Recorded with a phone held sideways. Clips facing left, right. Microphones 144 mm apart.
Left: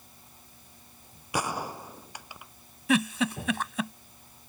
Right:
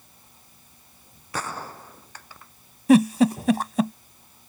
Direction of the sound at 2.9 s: 40° right (ahead or behind).